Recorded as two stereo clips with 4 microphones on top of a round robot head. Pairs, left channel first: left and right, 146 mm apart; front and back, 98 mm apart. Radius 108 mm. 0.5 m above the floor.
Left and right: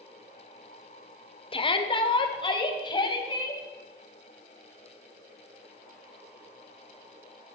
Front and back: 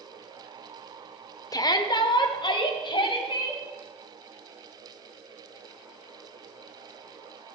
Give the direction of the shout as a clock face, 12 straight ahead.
11 o'clock.